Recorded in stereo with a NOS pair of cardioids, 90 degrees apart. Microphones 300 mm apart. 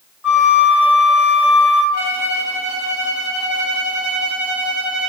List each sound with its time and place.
0.2 s a flute: 5° right, 0.7 m
1.9 s a violin: 70° left, 1.0 m